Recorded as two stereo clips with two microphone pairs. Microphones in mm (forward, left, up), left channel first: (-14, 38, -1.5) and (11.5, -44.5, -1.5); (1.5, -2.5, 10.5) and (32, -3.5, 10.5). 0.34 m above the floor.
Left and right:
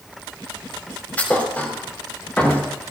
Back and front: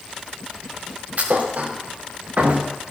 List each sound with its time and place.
1.2 s a thud: 35° left, 4.5 m